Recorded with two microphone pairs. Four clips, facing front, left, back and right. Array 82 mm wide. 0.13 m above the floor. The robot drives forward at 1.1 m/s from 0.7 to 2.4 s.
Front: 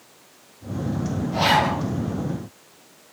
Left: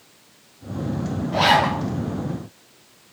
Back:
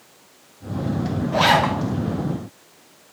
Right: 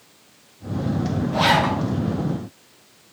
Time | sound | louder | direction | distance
1.3 | a zipper | left 2 dB, back 2 dB | 165° left | 1.8 m